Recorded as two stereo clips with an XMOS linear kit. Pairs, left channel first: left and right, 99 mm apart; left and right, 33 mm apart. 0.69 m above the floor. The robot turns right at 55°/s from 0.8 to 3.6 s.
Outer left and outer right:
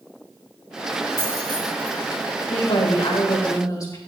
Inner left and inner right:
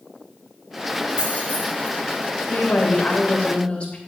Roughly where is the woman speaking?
Left.